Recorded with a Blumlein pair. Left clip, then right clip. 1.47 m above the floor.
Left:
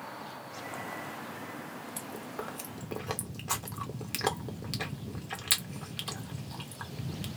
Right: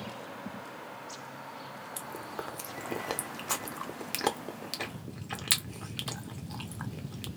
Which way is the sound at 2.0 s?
5° right.